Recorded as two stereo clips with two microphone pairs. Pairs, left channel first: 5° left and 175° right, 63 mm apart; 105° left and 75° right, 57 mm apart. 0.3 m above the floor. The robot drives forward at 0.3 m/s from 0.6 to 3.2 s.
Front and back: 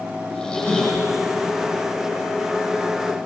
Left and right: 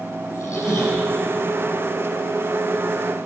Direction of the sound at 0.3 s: 85° left.